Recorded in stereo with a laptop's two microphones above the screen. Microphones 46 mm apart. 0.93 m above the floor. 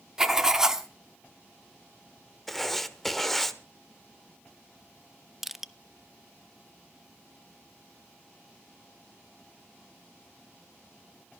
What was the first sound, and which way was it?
Writing, 10° right (ahead or behind).